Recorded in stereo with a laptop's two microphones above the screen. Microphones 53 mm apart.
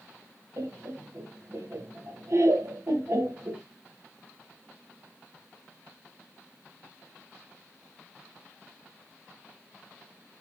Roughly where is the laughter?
Right.